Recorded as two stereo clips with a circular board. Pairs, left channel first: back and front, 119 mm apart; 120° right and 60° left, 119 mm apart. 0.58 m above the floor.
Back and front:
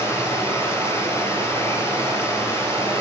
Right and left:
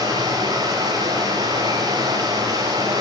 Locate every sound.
0.0 s running water: 115° left, 2.5 m